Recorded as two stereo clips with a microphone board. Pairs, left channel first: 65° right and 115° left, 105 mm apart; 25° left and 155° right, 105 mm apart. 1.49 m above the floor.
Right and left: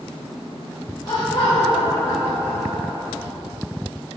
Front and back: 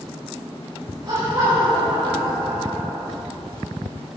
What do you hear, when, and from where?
1.1 s laughter: 120° right, 4.5 m; by 3.1 s 125° right, 3 m